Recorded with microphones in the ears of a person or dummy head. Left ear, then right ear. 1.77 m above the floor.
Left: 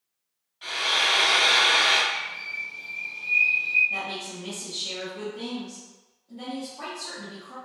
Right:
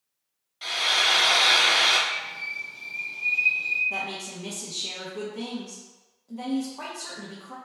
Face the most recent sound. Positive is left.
turn(degrees=-55)  # may be behind; listen again after turning